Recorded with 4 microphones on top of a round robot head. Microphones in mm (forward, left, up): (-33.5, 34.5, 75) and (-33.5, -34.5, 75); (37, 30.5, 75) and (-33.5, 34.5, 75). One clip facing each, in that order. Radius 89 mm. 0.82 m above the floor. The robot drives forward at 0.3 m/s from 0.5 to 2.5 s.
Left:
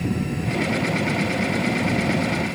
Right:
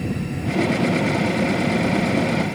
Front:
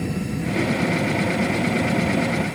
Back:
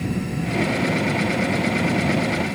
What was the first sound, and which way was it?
Only background noise.